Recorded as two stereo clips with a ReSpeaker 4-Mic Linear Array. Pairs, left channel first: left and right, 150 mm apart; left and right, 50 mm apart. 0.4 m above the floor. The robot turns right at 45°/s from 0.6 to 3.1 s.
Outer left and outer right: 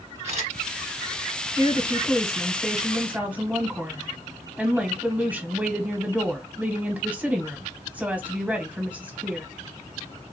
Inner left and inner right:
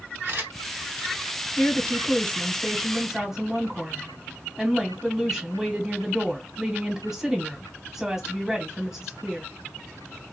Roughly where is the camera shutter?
Right.